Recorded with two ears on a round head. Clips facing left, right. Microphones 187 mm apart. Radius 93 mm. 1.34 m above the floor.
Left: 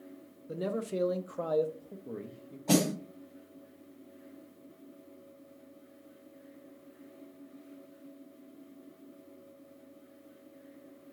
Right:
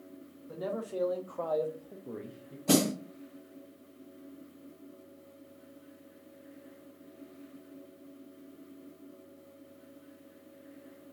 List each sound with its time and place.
0.5 s a man speaking: 35° left (ahead or behind), 0.6 m; by 2.6 s 5° right (ahead or behind), 0.8 m
2.7 s a snare drum: 30° right (ahead or behind), 2.5 m